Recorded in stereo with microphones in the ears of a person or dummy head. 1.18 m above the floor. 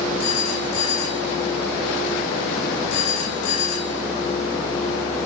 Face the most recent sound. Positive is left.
turn(degrees=85)